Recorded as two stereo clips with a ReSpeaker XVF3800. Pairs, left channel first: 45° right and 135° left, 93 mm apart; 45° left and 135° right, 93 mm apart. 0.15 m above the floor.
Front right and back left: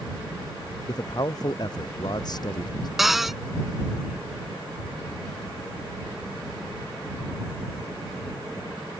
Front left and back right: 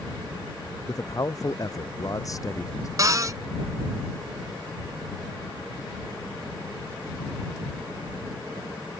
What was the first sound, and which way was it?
A man speaking, 5° right.